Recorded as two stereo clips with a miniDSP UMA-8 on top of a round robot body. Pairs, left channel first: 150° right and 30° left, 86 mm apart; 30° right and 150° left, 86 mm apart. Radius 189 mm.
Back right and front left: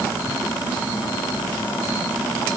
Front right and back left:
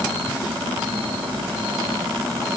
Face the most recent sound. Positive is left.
No sound to turn to.